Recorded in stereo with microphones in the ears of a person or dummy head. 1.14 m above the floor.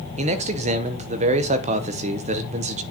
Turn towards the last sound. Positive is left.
turn(degrees=-35)  # may be behind; listen again after turning